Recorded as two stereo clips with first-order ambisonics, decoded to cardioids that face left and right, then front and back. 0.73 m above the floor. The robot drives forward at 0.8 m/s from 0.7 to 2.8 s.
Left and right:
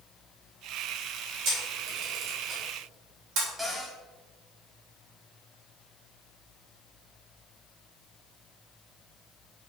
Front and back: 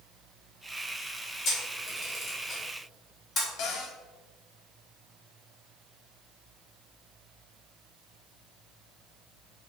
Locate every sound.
1.4 s a camera shutter: 55° right, 3 m; by 3.5 s 75° right, 2.5 m
3.6 s a cupboard door: 10° right, 1.6 m